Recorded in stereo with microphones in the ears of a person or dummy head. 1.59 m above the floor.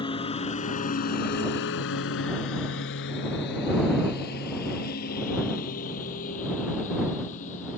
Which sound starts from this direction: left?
A lawn mower, at 0.0 s.